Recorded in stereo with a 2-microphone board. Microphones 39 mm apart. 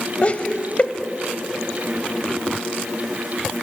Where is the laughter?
35° left (ahead or behind), 1.2 m.